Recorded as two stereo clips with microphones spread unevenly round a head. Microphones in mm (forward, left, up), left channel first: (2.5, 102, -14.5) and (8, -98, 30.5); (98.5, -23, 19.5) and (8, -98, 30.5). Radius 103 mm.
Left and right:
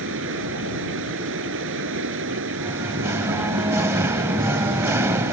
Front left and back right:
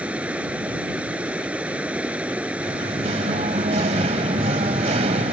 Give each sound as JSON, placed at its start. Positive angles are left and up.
{"t": 0.0, "sound": "running water", "azimuth_deg": -60}
{"t": 2.6, "sound": "singing", "azimuth_deg": -155}